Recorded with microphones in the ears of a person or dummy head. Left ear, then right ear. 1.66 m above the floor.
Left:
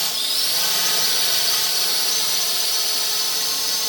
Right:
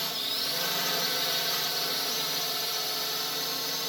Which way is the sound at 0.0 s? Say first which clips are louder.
Left 8 dB; 30° left (ahead or behind).